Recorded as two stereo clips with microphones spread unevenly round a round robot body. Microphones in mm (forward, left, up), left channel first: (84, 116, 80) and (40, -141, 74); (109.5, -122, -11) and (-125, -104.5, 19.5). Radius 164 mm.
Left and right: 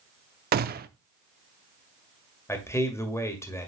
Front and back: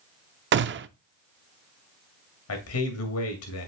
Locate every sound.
0.5 s a gunshot: 145° right, 0.6 m
2.5 s a man speaking: straight ahead, 2.0 m